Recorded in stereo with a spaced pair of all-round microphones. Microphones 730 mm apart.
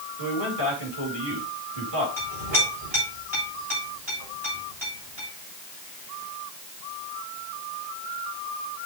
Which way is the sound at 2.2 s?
40° right (ahead or behind).